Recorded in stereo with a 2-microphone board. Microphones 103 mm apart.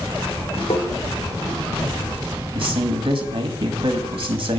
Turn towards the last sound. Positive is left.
turn(degrees=-50)  # may be behind; listen again after turning